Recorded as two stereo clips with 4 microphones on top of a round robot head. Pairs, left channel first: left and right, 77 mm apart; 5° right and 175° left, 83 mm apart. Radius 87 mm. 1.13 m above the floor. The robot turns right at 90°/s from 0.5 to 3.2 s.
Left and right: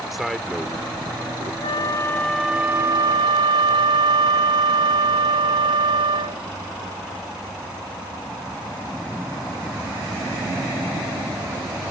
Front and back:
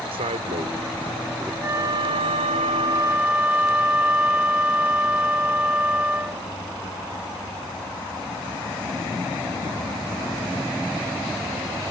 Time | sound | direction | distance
0.1 | a man speaking | 175° right | ?
1.6 | a flute | 110° left | ?